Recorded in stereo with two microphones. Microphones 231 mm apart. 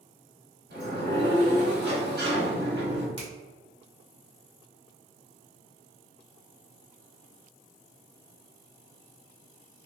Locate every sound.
0.7 s a sliding door: 45° right (ahead or behind), 1.2 m
3.2 s a finger snap: 25° right (ahead or behind), 1.3 m